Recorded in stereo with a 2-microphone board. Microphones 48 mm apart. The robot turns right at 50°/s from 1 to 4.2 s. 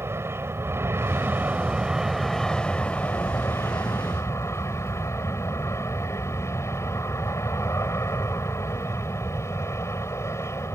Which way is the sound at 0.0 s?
65° right.